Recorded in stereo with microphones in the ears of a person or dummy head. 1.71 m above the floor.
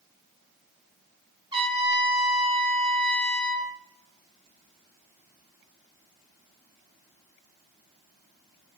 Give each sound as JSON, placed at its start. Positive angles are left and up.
{"t": 1.5, "sound": "a trumpet", "side_deg": -30, "distance_m": 0.9}